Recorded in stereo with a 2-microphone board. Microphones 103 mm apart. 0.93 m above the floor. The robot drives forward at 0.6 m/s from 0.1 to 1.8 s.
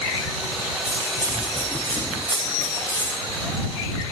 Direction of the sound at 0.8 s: 20° left (ahead or behind).